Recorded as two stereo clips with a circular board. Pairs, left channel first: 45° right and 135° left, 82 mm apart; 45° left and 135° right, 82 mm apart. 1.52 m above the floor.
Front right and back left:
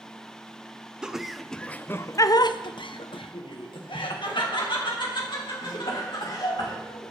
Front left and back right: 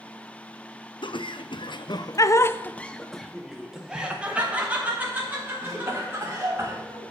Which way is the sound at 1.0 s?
55° left.